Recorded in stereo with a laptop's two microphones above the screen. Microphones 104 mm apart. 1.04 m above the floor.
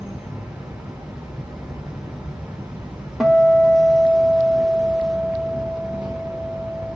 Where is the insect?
5° right (ahead or behind), 1.1 m.